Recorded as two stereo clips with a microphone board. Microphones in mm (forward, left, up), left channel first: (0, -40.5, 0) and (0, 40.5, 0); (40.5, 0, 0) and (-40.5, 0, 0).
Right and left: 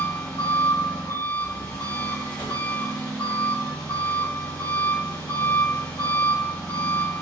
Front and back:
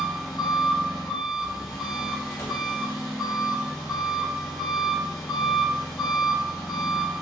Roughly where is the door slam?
Ahead right.